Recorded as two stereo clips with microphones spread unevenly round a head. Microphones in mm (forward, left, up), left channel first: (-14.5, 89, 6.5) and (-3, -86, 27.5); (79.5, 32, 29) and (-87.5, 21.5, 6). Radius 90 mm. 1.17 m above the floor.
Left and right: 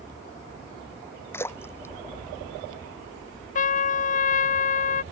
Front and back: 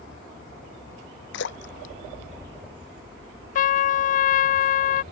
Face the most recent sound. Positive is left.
turn(degrees=50)